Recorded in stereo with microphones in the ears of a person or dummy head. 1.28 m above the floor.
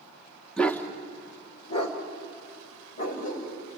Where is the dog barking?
5° left (ahead or behind), 1.0 m; by 3.5 s 50° left (ahead or behind), 3.5 m.